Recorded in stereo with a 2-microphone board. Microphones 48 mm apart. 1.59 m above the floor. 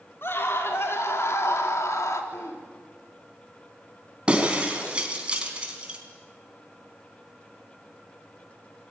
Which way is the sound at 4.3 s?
20° right (ahead or behind).